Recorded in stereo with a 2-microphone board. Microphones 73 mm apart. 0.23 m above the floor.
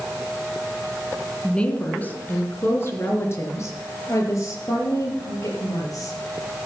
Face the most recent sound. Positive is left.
turn(degrees=55)  # may be behind; listen again after turning